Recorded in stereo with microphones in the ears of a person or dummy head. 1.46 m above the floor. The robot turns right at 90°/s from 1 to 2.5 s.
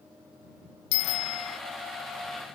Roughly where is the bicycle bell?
Ahead left.